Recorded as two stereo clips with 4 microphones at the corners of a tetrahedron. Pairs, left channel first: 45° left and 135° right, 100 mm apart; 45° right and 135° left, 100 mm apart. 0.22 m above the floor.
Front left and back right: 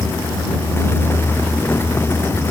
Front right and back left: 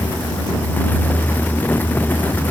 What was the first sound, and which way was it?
Only background noise.